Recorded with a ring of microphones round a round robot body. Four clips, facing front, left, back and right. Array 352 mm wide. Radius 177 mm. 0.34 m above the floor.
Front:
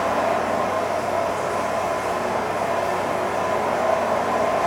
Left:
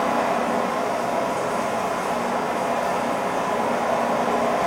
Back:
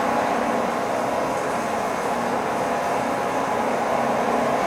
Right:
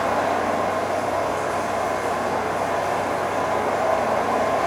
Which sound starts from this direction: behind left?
Running water, at 0.0 s.